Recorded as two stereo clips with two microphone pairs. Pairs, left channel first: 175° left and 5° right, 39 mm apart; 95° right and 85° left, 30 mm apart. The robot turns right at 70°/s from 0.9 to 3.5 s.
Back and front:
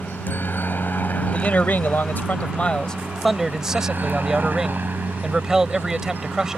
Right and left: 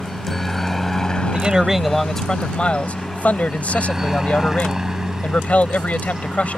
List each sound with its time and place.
0.0 s a helicopter: straight behind; by 6.6 s 15° left
1.3 s a man speaking: 130° left; by 6.6 s 80° right